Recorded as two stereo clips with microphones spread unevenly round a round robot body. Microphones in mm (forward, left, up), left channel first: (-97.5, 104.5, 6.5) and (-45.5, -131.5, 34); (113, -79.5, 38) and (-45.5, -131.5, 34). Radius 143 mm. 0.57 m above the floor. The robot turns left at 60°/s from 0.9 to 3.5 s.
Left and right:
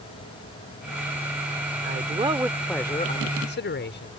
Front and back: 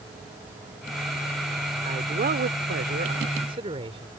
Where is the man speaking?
125° right; by 4.1 s 135° left.